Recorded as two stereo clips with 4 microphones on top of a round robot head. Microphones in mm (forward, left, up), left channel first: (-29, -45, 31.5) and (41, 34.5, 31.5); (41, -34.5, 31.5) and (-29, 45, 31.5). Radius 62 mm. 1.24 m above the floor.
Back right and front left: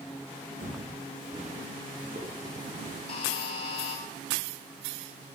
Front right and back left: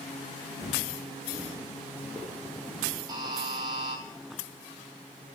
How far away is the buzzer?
About 1.6 m.